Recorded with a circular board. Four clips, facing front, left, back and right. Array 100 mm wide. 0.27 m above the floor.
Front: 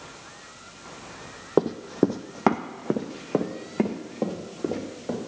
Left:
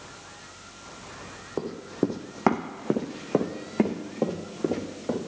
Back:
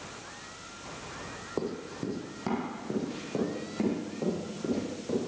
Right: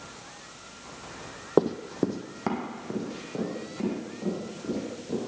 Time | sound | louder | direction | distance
1.6 | running footsteps | right 4 dB, front 13 dB | 40° right | 0.6 m